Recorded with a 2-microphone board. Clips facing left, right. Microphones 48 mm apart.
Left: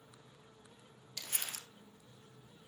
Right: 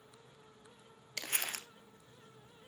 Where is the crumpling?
55° right (ahead or behind), 1.1 m.